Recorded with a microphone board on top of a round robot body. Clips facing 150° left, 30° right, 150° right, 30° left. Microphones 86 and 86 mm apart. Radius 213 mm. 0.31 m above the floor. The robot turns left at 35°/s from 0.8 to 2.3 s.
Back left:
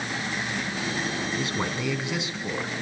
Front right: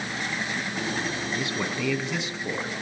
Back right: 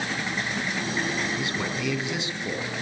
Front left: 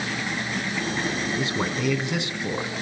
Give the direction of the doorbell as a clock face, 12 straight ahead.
I don't hear a doorbell.